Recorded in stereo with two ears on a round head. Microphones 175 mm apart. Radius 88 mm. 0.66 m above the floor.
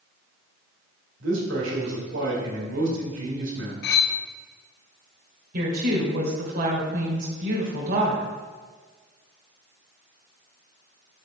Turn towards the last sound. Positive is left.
turn(degrees=-50)  # may be behind; listen again after turning